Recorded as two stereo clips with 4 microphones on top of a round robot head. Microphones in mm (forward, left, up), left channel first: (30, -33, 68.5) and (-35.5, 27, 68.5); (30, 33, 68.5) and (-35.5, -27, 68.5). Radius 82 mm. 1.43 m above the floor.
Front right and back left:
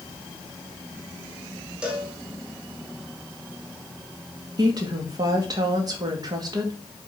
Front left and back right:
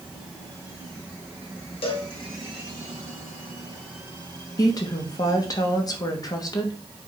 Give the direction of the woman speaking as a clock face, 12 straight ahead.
9 o'clock.